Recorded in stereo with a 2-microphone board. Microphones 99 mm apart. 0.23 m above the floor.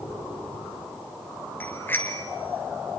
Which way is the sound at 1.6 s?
20° left (ahead or behind).